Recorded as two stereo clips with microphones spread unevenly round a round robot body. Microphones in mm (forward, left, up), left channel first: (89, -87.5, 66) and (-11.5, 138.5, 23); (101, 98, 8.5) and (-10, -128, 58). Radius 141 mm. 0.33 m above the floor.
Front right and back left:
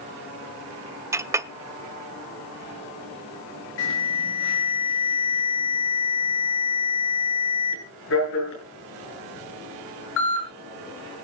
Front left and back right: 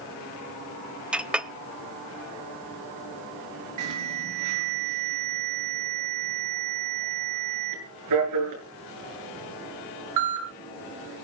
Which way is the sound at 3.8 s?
110° right.